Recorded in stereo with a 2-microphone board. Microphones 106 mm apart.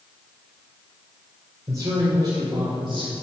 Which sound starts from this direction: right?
A man speaking, at 1.7 s.